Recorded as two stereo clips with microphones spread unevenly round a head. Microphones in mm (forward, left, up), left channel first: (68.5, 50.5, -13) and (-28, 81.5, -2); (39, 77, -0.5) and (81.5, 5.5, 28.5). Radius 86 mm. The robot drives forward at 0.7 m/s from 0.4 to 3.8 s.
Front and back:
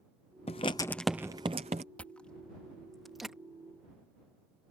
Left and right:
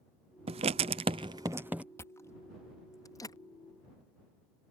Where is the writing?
55° right; by 1.8 s 145° right.